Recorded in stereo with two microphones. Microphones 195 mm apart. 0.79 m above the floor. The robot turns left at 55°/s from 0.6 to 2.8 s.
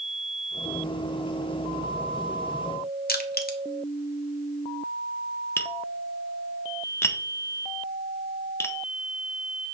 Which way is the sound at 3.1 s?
50° left (ahead or behind).